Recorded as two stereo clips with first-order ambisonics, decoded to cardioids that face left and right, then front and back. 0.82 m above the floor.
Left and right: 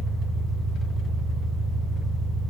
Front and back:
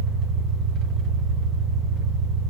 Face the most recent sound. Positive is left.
turn(degrees=170)